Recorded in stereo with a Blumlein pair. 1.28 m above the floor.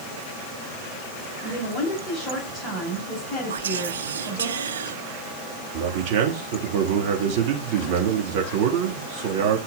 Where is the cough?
I don't hear a cough.